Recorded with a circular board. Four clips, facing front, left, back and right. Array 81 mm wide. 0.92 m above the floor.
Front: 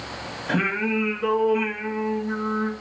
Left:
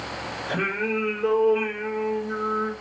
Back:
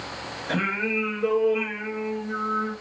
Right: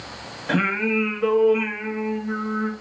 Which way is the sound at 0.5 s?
75° right.